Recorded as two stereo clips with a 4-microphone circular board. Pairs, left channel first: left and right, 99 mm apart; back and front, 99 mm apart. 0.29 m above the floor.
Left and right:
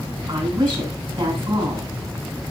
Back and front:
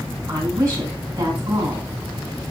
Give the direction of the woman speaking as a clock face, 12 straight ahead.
2 o'clock.